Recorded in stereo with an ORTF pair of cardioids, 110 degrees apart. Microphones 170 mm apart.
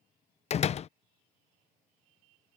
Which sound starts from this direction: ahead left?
A door slam, at 0.5 s.